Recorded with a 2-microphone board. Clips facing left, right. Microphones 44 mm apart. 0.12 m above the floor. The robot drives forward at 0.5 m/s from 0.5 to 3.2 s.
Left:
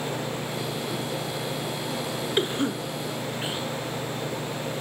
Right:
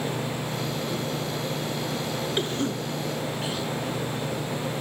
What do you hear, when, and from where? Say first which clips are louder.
2.4 s a cough: left 4 dB; 20° left (ahead or behind), 1.5 m; by 3.7 s 25° left (ahead or behind), 1.3 m